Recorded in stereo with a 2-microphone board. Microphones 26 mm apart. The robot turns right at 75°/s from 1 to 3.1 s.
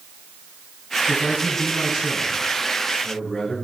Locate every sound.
1.1 s a man speaking: 125° right, 7 m; by 3.5 s 30° left, 7 m